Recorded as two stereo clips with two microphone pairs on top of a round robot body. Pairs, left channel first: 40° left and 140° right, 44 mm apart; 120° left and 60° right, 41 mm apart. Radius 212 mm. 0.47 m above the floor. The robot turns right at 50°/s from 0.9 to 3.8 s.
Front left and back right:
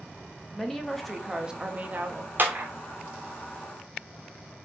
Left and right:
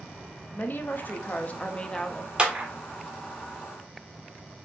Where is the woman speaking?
125° left, 1.0 m; by 2.3 s 165° right, 1.0 m.